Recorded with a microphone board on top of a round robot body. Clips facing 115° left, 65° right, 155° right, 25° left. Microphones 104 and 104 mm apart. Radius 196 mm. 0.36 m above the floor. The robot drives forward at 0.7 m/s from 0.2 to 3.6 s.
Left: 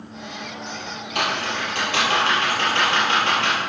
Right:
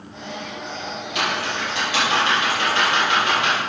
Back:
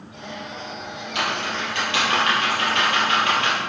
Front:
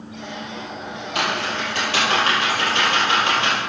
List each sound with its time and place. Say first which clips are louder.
1.1 s typing on a keyboard: even, front 2 dB; 70° left, 4.5 m; by 3.6 s 90° left, 4 m